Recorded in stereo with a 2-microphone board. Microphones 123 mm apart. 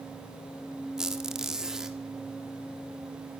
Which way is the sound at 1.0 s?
5° right (ahead or behind).